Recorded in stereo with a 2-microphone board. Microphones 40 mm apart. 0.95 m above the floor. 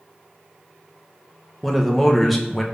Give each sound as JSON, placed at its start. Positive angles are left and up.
{"t": 1.6, "sound": "a man speaking", "side_deg": 0, "distance_m": 0.7}